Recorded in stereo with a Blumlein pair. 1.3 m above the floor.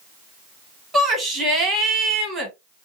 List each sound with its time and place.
0.9 s a shout: 15° right, 2.0 m